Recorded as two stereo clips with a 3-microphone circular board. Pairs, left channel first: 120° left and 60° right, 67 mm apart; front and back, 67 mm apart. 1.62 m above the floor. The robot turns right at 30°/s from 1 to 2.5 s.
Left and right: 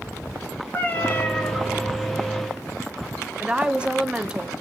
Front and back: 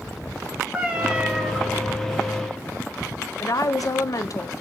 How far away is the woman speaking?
About 0.6 m.